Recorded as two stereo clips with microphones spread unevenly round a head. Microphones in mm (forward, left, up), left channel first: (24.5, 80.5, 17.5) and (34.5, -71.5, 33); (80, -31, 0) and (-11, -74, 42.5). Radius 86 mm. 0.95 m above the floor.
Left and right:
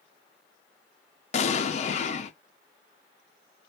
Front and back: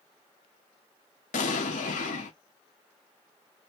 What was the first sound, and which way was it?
An explosion, 45° left.